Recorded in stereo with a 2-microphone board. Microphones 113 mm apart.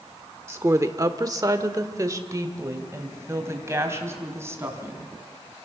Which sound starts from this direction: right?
A woman speaking, at 0.5 s.